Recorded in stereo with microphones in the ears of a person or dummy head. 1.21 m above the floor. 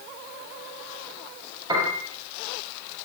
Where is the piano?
25° right (ahead or behind), 8.5 m.